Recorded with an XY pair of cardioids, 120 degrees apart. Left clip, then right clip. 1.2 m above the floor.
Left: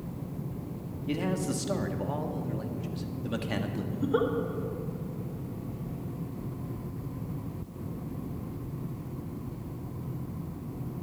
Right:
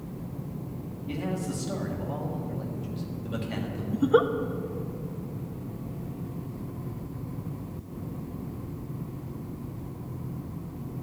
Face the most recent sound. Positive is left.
turn(degrees=-40)